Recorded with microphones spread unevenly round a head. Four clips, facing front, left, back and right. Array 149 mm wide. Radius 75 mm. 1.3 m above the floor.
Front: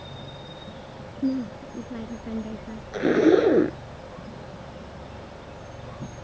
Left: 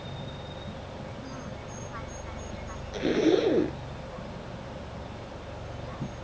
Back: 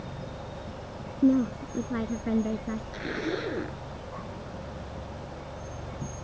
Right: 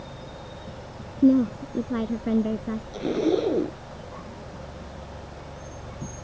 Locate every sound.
1.2 s a woman speaking: 100° right; by 2.8 s 105° right
2.9 s a zipper: straight ahead